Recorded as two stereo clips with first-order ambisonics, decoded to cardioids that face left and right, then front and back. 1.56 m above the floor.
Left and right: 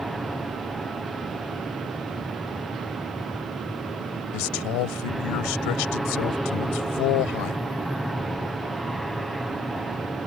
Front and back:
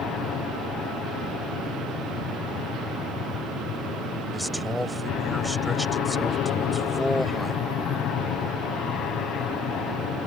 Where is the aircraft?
5° right.